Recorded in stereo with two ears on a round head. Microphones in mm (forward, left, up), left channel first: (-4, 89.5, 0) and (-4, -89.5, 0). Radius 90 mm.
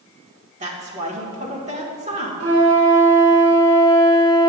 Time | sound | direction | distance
0.6 | a woman speaking | 35° right (ahead or behind) | 1.8 m
2.4 | a flute | 55° right (ahead or behind) | 3.5 m